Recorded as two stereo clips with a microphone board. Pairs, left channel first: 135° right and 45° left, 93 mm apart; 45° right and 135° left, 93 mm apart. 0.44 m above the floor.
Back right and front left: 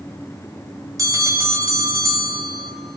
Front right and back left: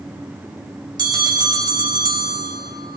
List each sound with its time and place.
1.0 s a bell: 95° left, 1.6 m